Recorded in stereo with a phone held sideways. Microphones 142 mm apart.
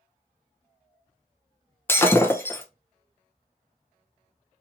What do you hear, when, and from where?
1.9 s breaking glass: 15° left (ahead or behind), 0.6 m